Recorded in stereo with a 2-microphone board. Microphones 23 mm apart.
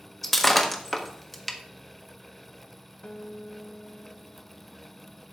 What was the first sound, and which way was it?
Breaking glass, 10° left (ahead or behind).